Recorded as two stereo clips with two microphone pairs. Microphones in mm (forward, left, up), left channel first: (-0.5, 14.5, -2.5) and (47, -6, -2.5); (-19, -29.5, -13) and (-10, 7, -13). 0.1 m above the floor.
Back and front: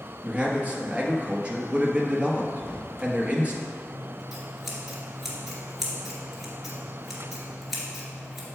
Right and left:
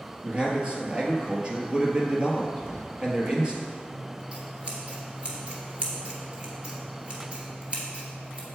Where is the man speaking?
30° left, 1.4 m.